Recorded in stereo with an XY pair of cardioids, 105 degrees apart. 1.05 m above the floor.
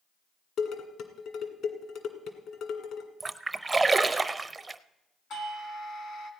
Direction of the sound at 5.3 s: 65° left.